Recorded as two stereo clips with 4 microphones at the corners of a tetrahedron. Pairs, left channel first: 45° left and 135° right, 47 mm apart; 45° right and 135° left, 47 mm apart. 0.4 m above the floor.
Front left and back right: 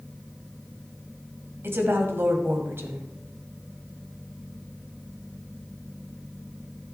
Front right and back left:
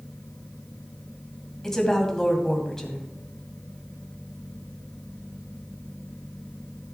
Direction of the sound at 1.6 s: 120° right.